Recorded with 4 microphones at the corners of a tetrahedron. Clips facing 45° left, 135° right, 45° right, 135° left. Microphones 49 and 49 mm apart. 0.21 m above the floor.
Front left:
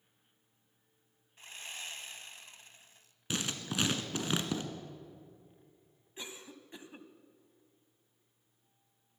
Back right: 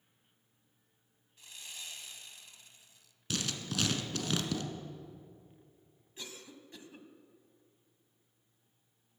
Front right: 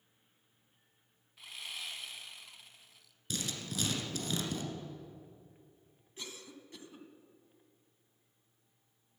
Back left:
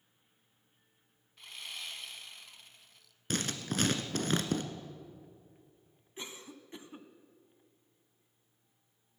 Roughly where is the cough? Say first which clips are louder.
Front left 2 dB, back left 2 dB; left.